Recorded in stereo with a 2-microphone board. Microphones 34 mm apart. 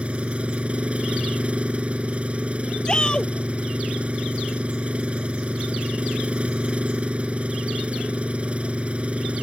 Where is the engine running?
35° right (ahead or behind).